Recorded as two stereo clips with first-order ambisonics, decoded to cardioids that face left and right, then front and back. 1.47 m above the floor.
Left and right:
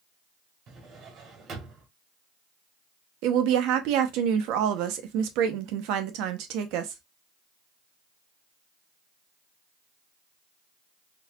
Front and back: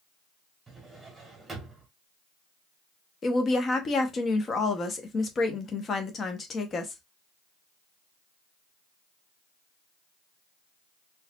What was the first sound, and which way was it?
A drawer, 110° right.